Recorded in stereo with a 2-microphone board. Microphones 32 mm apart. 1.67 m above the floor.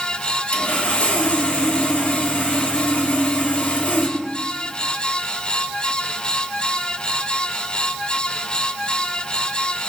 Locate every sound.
0.5 s sawing: 50° left (ahead or behind), 1.7 m